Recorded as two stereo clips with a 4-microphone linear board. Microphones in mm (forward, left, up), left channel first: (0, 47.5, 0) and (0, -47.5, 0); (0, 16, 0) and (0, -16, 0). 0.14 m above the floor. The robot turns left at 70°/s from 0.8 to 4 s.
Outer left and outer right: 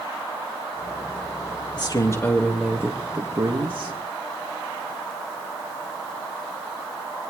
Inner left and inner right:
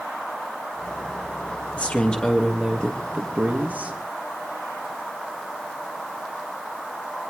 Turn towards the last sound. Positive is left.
turn(degrees=-95)